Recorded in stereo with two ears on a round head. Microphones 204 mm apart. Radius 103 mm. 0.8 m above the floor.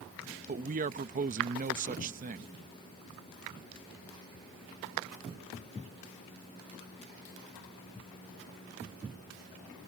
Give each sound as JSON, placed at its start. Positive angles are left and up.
{"t": 0.5, "sound": "a man speaking", "side_deg": -35}